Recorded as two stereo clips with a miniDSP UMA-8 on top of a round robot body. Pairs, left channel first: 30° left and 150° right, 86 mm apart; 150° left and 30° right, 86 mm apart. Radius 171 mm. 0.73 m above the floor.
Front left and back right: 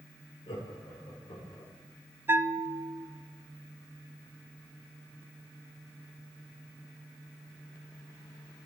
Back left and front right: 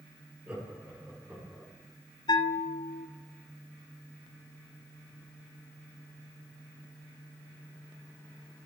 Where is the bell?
150° left, 0.6 m.